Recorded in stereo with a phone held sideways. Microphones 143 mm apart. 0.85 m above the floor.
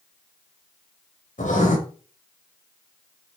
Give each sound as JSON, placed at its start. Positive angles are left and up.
{"t": 1.4, "sound": "writing", "side_deg": 60, "distance_m": 3.0}